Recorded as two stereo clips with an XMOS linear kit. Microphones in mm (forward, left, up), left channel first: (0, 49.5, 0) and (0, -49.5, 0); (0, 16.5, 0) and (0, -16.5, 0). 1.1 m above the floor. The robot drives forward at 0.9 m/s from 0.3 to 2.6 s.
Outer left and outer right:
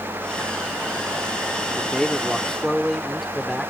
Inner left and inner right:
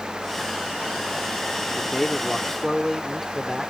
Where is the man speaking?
Centre (ahead or behind).